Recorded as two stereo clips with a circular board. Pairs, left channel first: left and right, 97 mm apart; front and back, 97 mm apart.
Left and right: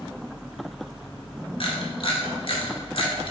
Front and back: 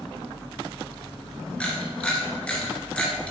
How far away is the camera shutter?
About 1.6 m.